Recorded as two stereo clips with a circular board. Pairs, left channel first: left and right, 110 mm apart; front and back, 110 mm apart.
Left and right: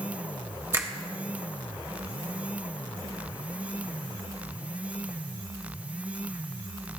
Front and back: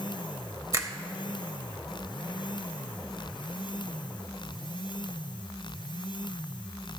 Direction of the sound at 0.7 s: 135° right.